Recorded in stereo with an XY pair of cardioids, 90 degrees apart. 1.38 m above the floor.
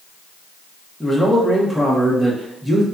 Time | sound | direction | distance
1.0 | a man speaking | 5° right | 0.8 m